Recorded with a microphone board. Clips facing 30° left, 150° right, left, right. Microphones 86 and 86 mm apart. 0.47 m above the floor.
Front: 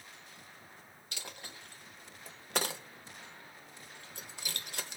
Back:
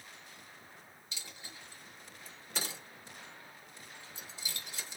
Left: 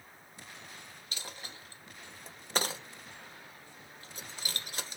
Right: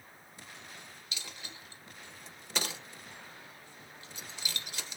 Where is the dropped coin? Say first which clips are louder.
Front 4 dB, left 2 dB; 45° left, 0.7 m.